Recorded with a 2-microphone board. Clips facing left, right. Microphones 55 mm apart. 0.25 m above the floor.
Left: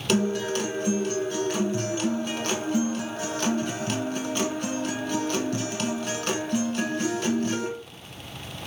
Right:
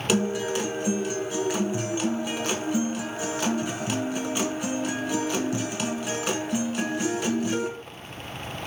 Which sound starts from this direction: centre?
A guitar, at 0.1 s.